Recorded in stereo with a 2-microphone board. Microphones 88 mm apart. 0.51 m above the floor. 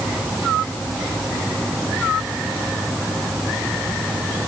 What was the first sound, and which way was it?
Only background noise.